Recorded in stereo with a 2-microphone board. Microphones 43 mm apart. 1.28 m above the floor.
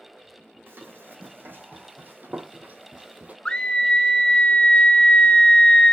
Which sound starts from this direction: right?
Running footsteps, at 0.7 s.